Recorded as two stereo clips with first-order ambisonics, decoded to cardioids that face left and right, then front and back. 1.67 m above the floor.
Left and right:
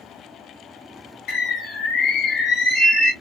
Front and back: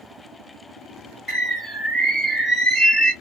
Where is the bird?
70° left, 1.5 m.